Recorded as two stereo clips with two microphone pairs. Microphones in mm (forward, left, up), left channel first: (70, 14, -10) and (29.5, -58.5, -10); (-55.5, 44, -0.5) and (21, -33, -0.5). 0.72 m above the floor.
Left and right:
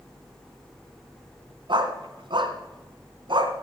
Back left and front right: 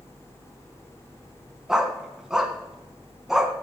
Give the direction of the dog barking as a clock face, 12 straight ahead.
4 o'clock.